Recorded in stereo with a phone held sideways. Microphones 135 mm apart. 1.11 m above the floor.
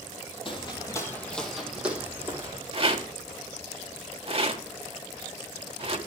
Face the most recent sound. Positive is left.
turn(degrees=-45)  # may be behind; listen again after turning